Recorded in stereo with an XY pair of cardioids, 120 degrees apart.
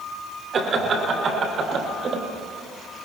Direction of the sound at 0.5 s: 45° right.